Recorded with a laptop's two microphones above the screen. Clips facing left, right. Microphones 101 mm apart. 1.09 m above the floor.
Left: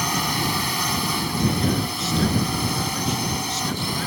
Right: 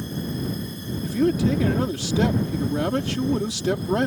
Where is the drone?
85° left.